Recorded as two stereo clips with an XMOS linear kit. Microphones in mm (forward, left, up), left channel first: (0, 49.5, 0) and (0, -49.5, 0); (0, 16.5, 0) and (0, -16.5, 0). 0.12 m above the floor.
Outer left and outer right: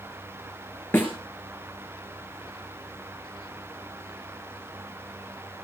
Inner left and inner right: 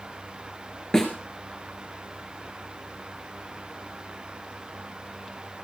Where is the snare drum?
15° left (ahead or behind), 4.5 m.